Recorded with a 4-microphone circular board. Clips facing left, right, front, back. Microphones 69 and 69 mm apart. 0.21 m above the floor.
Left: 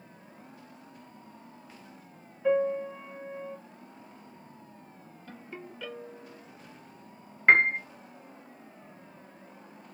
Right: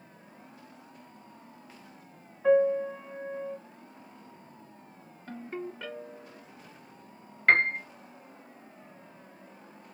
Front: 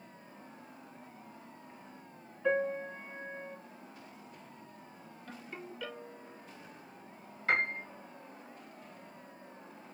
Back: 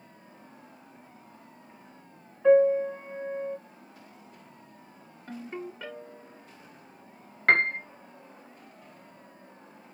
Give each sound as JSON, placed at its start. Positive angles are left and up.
{"t": 2.4, "sound": "a piano", "azimuth_deg": -125, "distance_m": 3.0}
{"t": 5.3, "sound": "a ringtone", "azimuth_deg": -130, "distance_m": 1.6}
{"t": 7.5, "sound": "a piano", "azimuth_deg": 165, "distance_m": 0.6}